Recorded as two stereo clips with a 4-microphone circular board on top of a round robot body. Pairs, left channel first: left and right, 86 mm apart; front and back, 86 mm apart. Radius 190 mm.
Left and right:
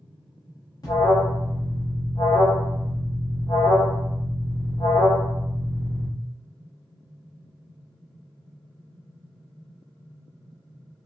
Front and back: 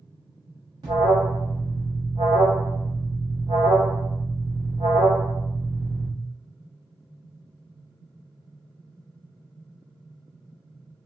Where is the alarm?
140° left, 0.7 m.